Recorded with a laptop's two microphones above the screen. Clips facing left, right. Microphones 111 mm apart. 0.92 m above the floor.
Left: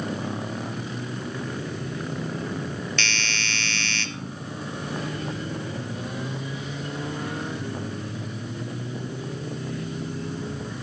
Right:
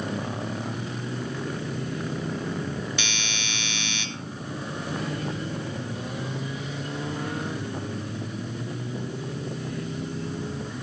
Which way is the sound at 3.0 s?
10° right (ahead or behind).